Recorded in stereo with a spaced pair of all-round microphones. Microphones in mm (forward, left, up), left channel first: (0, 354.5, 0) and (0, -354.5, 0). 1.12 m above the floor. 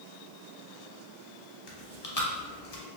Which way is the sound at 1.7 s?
60° left (ahead or behind).